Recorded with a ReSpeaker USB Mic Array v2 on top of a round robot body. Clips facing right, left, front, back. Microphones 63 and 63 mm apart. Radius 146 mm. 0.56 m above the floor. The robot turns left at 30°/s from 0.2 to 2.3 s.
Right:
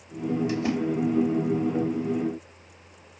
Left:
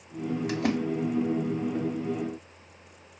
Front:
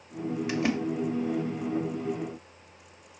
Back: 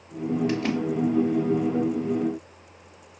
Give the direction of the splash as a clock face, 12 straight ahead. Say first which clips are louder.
Right 1 dB, back 2 dB; 9 o'clock.